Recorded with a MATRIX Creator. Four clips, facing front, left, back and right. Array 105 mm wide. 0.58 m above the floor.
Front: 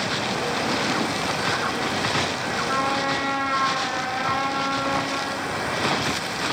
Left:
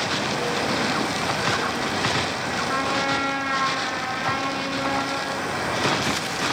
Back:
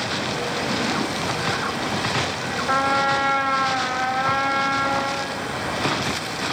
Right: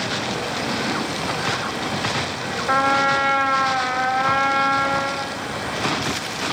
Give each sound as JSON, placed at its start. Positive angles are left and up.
{"t": 2.7, "sound": "a trumpet", "azimuth_deg": -115, "distance_m": 2.0}